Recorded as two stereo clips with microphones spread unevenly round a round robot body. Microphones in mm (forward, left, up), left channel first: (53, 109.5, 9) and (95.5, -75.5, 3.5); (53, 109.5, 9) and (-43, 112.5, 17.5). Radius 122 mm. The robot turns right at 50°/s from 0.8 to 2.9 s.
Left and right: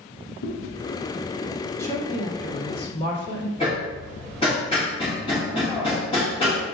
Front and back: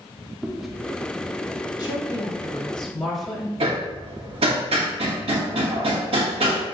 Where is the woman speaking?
25° left, 1.8 m; by 3.5 s 85° left, 1.8 m.